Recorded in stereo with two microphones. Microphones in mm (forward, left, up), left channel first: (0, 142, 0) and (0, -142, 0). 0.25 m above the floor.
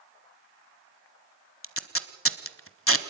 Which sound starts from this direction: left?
Tape being pulled, at 1.6 s.